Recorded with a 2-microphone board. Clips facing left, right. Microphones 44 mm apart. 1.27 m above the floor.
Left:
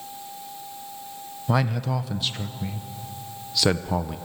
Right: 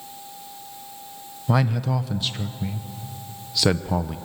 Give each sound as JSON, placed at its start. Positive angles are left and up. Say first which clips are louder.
{"t": 1.5, "sound": "a man speaking", "louder": "right 2 dB", "side_deg": 0, "distance_m": 0.5}